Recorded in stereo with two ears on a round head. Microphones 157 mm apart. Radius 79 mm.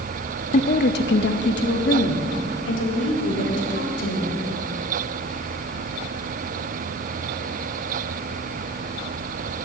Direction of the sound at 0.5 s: 40° left (ahead or behind).